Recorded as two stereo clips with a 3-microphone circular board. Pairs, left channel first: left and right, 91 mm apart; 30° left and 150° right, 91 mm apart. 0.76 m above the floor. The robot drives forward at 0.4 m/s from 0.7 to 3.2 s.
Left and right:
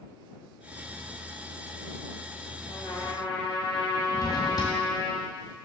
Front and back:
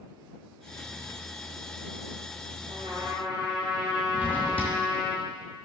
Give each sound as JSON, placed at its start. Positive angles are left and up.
{"t": 2.7, "sound": "a trumpet", "azimuth_deg": 160, "distance_m": 3.0}
{"t": 4.1, "sound": "a drawer", "azimuth_deg": 140, "distance_m": 2.0}